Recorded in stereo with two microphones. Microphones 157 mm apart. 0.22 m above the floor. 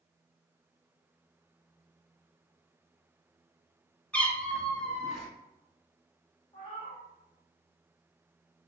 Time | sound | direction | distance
4.1 | a cat meowing | 10° left (ahead or behind) | 0.5 m
6.5 | a cat meowing | 35° left (ahead or behind) | 1.1 m